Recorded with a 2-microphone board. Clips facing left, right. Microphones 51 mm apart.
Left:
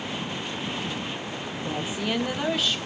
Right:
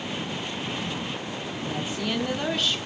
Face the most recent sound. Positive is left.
turn(degrees=0)  # may be behind; listen again after turning